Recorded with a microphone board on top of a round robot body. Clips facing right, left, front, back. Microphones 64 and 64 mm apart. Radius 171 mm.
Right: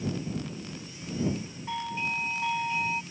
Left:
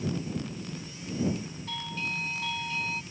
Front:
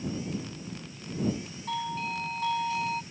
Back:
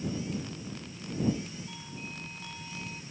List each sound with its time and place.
1.7 s a doorbell: 20° right